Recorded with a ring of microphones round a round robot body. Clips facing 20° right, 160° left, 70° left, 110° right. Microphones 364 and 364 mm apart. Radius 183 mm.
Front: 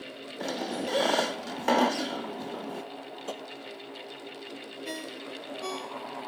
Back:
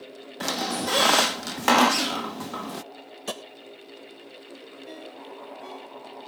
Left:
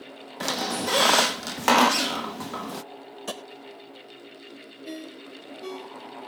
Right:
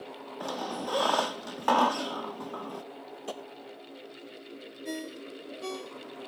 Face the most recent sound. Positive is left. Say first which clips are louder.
# front 2 dB, right 1 dB
turn(degrees=-40)